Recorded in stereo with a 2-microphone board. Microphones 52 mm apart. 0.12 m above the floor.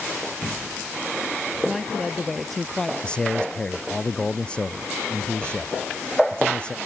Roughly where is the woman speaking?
Centre.